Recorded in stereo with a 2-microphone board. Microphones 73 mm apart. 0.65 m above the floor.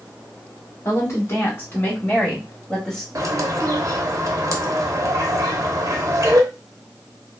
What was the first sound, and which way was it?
A woman speaking, 45° left (ahead or behind).